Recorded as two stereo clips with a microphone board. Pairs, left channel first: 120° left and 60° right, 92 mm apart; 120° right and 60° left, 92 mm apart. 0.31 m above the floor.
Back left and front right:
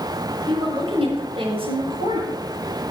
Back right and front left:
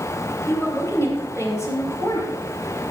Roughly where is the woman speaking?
Ahead right.